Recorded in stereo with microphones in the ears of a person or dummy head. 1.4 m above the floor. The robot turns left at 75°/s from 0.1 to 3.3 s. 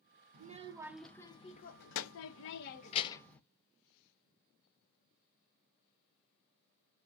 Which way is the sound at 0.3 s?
125° right.